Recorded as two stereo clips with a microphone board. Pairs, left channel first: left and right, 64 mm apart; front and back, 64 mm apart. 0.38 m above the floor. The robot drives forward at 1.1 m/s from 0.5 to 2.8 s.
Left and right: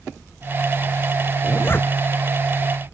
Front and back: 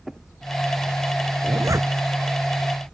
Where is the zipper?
140° left; by 1.9 s 145° left.